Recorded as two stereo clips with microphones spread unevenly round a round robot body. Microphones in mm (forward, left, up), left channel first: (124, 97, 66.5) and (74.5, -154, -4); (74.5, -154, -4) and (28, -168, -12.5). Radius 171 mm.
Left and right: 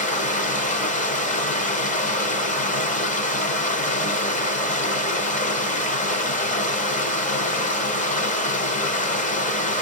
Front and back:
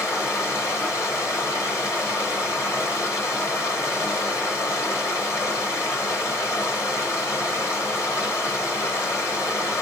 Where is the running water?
20° left, 1.1 m.